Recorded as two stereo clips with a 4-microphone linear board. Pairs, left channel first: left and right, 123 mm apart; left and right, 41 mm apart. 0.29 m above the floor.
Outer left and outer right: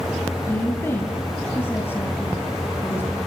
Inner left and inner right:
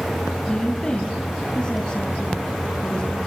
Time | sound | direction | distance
0.4 | a woman speaking | 20° left (ahead or behind) | 2.5 m